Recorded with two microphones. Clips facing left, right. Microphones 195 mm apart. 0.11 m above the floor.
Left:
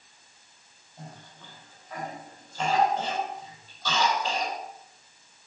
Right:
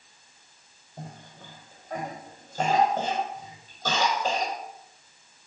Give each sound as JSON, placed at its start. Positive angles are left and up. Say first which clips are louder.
{"t": 1.0, "sound": "a cough", "louder": "right 3 dB", "side_deg": -50, "distance_m": 4.0}